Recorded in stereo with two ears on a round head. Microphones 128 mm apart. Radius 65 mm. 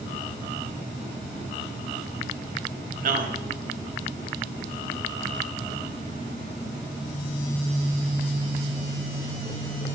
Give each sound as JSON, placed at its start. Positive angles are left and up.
{"t": 3.0, "sound": "a man speaking", "side_deg": -65, "distance_m": 0.9}